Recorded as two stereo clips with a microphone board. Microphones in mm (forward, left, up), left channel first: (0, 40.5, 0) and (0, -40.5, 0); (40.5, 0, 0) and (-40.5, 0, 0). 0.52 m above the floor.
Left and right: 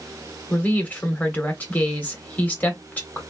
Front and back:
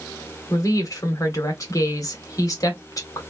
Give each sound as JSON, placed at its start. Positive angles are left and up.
{"t": 0.5, "sound": "a woman speaking", "azimuth_deg": 25, "distance_m": 1.7}